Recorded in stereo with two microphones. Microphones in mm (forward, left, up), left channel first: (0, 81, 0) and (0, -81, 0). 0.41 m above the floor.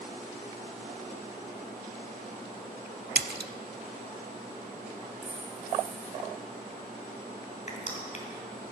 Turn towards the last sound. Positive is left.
turn(degrees=50)  # may be behind; listen again after turning